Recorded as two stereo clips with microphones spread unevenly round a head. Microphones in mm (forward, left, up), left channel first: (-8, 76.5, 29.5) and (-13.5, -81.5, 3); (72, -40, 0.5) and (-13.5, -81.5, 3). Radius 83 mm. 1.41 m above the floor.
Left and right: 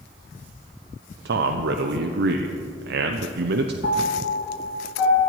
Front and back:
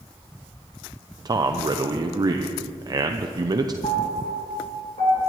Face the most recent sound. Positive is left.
turn(degrees=75)